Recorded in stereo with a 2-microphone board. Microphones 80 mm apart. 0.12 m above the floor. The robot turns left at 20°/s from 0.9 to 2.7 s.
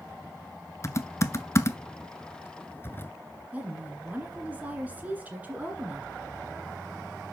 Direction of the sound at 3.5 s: 20° right (ahead or behind).